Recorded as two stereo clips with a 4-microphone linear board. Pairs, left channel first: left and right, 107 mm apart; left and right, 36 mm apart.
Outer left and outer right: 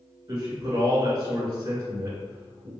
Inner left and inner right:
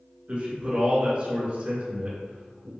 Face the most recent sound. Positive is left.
turn(degrees=-40)  # may be behind; listen again after turning